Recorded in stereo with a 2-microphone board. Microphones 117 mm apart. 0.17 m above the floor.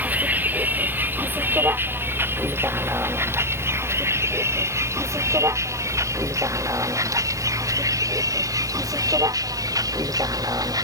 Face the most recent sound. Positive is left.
turn(degrees=-35)  # may be behind; listen again after turning